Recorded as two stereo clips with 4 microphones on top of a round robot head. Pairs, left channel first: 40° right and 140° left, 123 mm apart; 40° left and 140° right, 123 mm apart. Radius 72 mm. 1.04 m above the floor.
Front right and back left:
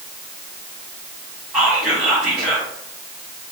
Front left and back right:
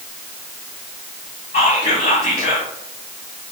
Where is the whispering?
60° left, 1.4 m.